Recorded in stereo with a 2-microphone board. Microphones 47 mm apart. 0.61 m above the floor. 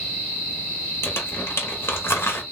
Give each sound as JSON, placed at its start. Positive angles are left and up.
{"t": 1.0, "sound": "crumpling", "side_deg": 55, "distance_m": 1.4}